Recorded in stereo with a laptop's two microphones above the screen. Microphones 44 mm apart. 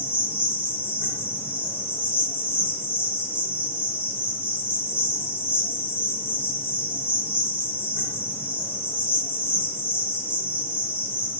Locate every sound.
0.0 s an insect: 50° left (ahead or behind), 2.5 m